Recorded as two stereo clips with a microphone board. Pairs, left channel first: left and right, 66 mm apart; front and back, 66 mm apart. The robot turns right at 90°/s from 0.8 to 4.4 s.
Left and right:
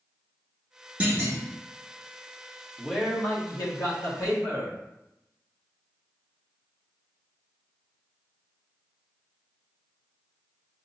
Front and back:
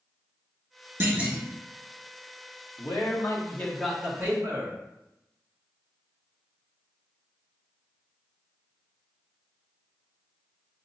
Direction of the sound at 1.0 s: 140° right.